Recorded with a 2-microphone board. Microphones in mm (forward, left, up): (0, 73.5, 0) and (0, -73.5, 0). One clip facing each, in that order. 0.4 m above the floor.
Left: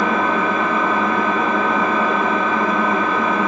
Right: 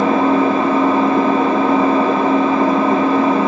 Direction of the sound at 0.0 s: 35° right (ahead or behind).